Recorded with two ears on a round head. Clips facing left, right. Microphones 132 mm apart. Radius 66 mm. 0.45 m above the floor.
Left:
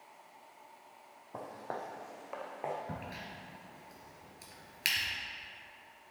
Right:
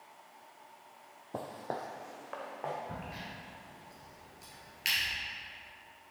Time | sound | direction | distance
1.3 | footsteps | 40° right (ahead or behind) | 0.6 m
2.9 | a crack | 65° left (ahead or behind) | 2 m